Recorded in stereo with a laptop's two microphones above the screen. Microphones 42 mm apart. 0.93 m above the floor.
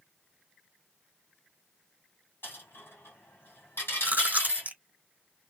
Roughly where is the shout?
I don't hear a shout.